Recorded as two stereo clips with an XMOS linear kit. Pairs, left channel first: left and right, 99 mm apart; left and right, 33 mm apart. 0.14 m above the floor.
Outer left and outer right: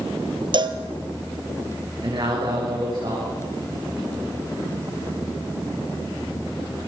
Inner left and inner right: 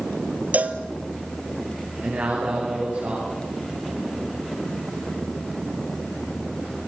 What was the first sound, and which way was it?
A cowbell, 50° right (ahead or behind).